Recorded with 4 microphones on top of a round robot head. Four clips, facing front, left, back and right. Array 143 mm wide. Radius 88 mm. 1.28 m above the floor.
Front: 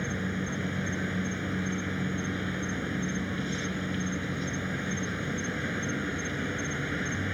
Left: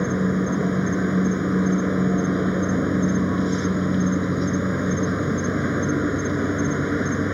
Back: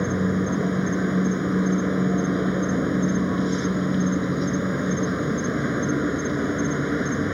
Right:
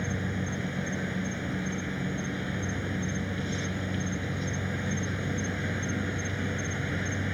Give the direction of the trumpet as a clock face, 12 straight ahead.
No trumpet in this recording.